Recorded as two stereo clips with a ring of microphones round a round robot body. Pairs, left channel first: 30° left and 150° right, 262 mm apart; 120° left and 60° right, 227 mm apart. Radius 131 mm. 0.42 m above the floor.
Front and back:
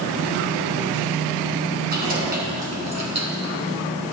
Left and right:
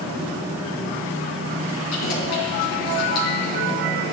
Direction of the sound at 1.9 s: 155° left.